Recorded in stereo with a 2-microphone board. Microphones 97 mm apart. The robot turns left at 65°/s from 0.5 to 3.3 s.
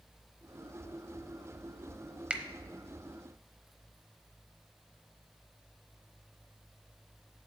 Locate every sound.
2.3 s a finger snap: 10° right (ahead or behind), 0.8 m